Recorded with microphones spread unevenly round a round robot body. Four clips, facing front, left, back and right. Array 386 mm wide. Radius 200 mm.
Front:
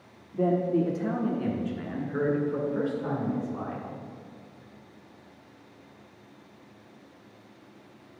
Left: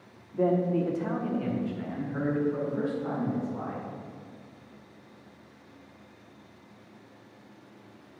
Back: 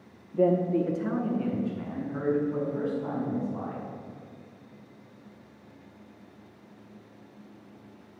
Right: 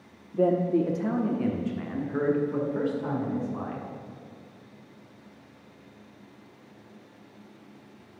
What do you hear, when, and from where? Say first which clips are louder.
0.3 s a man speaking: right 2 dB, back 1 dB; 110° right, 0.9 m; by 3.9 s 50° right, 2.5 m